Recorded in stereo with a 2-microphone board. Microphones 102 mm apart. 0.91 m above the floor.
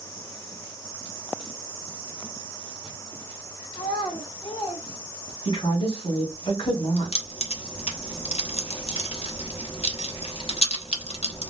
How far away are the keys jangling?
About 1.0 m.